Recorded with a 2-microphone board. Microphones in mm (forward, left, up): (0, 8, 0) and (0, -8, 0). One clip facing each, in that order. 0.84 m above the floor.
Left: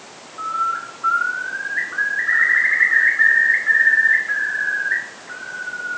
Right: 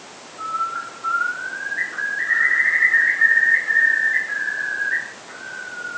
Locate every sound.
0.4 s a bird: 30° left (ahead or behind), 1.9 m